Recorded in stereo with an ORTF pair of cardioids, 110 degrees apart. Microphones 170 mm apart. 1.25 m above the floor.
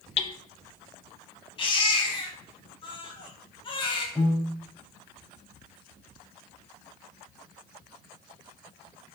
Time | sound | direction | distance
0.2 | hammering | 35° left | 0.7 m
1.6 | a baby crying | 30° left | 2.5 m
4.2 | a piano | 5° right | 5 m